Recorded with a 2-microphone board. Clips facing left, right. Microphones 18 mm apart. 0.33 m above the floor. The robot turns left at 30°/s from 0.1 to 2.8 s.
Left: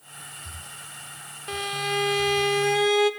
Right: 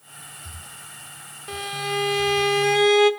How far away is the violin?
About 1.5 m.